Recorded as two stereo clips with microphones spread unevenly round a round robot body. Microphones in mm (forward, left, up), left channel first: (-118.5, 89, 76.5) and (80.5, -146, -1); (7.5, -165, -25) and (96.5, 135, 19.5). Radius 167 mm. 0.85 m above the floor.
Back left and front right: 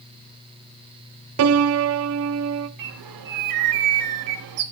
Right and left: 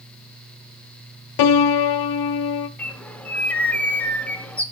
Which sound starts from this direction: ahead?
A bird, at 2.8 s.